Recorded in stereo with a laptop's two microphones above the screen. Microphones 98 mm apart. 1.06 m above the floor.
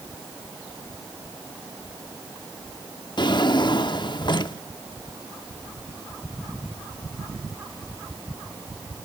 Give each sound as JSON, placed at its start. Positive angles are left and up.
{"t": 3.2, "sound": "a drawer", "side_deg": 50, "distance_m": 0.7}